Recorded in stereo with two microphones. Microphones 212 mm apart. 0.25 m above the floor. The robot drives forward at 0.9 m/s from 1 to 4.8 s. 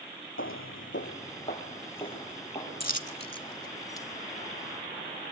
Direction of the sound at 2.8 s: 45° left (ahead or behind).